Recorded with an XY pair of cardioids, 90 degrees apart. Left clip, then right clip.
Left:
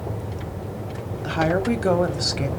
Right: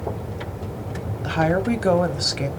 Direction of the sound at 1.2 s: 10° right.